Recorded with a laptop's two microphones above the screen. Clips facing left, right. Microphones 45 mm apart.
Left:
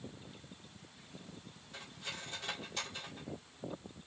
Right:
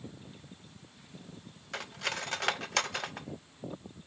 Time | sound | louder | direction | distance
1.7 | cutlery clinking | right 10 dB | 75° right (ahead or behind) | 0.6 m